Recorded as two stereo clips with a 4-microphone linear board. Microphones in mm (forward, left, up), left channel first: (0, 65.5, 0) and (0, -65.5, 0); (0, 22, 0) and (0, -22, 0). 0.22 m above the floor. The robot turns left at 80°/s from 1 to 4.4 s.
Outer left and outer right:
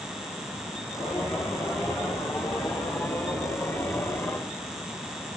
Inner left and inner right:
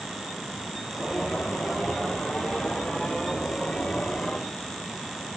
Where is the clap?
I don't hear a clap.